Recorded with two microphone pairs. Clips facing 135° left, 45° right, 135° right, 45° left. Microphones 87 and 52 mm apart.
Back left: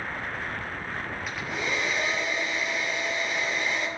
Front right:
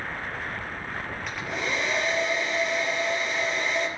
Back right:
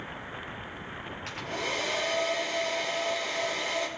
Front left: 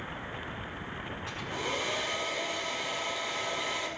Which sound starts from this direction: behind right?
A hair dryer, at 1.3 s.